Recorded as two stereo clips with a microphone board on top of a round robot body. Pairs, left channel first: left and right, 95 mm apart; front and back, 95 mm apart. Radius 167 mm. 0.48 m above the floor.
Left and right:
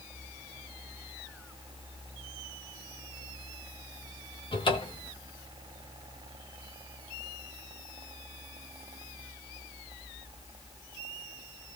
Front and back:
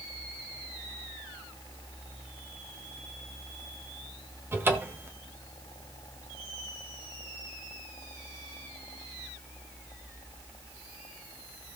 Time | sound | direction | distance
4.5 | a cupboard door | 115° left | 1.9 m